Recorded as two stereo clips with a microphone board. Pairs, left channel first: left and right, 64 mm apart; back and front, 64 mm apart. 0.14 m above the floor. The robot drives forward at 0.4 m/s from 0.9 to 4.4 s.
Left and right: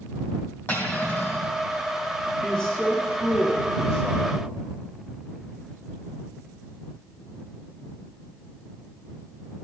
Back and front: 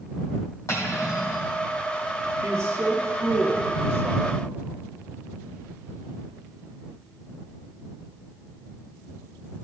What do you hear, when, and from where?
0.7 s cutlery clinking: 140° left, 3.5 m; by 1.4 s 145° left, 3.5 m
2.4 s a man speaking: 30° left, 2.5 m; by 4.4 s 45° left, 1.9 m